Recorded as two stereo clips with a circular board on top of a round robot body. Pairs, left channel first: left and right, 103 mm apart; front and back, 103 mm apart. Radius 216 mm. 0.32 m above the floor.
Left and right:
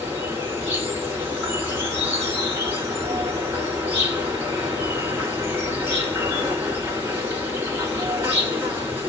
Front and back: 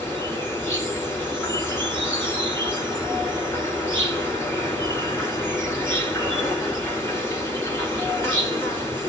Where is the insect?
45° right, 2.5 m.